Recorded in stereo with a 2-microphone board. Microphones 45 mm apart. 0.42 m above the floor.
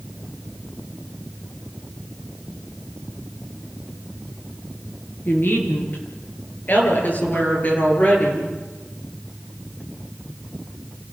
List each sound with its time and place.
5.2 s a woman speaking: 50° left (ahead or behind), 8.5 m; by 8.5 s 35° left (ahead or behind), 9.5 m